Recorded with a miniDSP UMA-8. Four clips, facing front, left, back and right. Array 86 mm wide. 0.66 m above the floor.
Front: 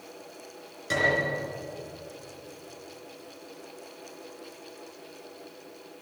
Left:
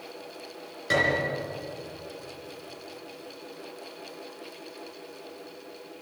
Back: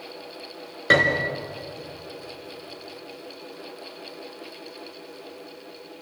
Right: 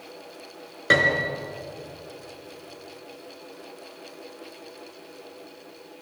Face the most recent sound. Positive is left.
turn(degrees=-145)